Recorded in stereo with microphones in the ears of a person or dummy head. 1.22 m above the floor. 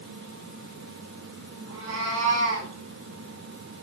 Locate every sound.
1.7 s a cat meowing: 75° right (ahead or behind), 7 m